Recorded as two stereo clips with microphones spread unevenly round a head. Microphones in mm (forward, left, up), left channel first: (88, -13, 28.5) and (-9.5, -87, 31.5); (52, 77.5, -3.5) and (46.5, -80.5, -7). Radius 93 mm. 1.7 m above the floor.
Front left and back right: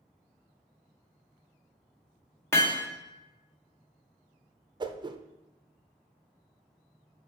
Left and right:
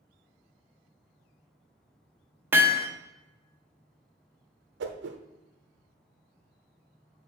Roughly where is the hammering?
Ahead.